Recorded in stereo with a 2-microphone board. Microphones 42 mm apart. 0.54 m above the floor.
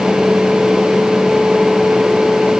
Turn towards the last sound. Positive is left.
No sound to turn to.